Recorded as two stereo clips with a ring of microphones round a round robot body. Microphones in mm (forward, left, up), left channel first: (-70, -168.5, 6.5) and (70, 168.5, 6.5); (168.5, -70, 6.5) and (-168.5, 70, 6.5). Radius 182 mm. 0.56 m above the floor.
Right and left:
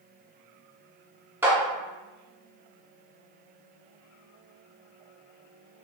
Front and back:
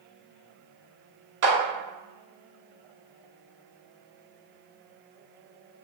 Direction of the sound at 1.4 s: 150° left.